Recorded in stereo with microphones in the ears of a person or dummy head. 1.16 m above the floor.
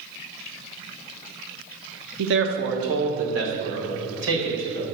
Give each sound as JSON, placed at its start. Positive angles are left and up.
{"t": 2.2, "sound": "a man speaking", "side_deg": -65, "distance_m": 0.9}